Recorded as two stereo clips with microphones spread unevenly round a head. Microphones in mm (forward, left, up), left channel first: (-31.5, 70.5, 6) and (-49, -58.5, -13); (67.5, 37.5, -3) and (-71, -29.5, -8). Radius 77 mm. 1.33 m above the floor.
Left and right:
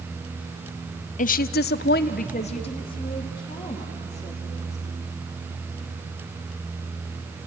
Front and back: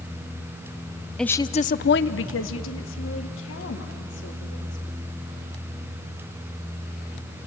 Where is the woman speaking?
115° left, 0.7 m; by 4.8 s 10° left, 4 m.